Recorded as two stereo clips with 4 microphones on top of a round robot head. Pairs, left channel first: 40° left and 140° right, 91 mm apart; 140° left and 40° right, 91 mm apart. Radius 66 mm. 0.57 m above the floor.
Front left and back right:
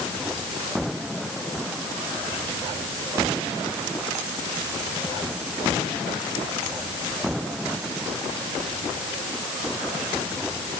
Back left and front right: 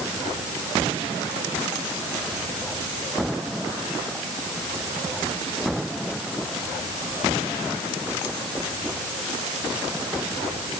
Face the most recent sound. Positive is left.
No sound to turn to.